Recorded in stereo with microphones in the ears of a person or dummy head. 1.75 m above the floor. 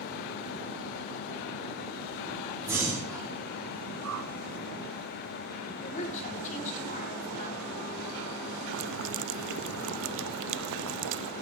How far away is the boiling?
About 0.6 m.